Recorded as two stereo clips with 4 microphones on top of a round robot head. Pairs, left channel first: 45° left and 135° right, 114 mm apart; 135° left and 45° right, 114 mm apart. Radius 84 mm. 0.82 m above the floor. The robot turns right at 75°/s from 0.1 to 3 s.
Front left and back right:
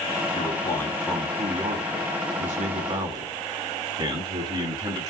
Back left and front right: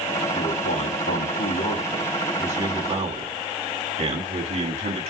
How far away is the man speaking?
About 6 m.